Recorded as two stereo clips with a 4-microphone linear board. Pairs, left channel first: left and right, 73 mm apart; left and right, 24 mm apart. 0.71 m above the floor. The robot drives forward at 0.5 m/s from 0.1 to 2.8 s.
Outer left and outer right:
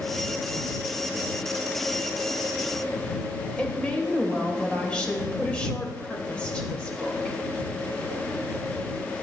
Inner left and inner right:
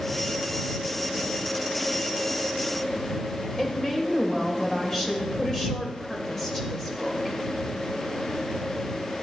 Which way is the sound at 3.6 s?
15° left (ahead or behind).